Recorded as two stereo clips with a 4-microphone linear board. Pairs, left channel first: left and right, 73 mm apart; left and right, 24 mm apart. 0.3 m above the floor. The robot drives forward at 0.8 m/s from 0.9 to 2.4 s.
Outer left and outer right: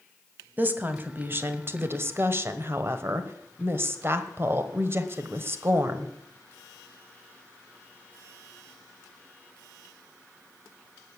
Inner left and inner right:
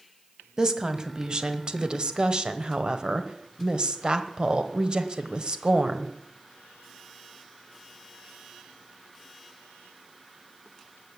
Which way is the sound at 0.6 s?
25° right (ahead or behind).